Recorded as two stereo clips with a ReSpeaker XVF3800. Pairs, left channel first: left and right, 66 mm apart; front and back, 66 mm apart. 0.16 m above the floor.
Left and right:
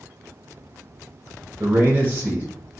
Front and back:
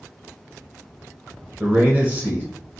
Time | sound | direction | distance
1.6 | a man speaking | 130° right | 1.4 m